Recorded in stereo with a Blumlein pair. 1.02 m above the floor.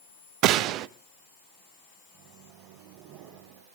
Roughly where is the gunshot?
Ahead right.